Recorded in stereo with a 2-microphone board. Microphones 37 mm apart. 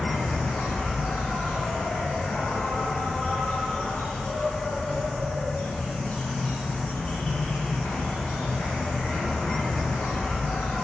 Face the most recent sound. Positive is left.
turn(degrees=40)  # may be behind; listen again after turning